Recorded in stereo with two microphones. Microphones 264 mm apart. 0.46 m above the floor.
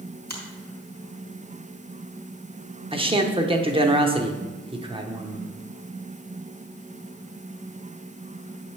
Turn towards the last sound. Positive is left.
turn(degrees=-20)  # may be behind; listen again after turning